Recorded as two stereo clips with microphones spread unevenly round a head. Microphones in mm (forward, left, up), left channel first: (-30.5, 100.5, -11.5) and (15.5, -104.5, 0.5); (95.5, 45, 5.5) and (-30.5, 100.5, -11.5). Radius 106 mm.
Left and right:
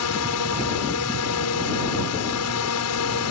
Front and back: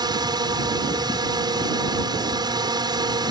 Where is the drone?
95° left.